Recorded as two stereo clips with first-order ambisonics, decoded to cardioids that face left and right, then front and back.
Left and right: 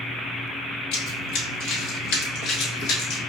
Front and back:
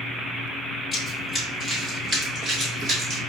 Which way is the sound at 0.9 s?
85° left.